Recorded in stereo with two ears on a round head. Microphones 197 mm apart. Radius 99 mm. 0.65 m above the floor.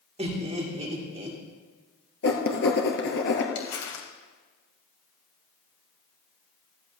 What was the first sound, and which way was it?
Laughter, 30° right (ahead or behind).